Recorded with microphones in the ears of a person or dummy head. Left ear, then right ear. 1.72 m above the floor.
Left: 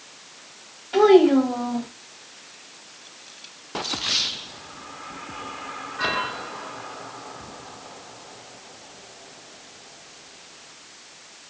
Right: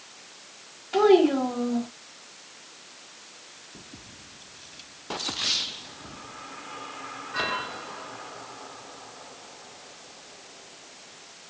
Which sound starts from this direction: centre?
A child speaking, at 0.9 s.